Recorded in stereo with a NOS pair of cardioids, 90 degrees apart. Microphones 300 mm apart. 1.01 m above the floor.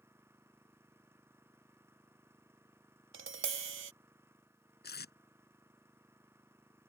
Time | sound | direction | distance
0.0 | an engine running | 10° right | ?
3.1 | tapping | 45° right | ?
4.8 | tape being pulled | 35° left | ?